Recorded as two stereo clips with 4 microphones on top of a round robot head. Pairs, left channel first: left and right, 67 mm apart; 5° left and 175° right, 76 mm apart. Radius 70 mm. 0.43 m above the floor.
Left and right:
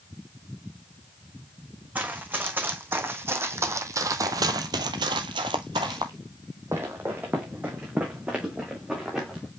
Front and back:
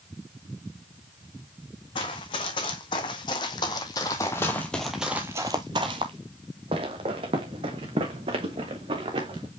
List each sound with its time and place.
1.9 s running footsteps: 25° right, 2 m; by 9.5 s 175° right, 2.5 m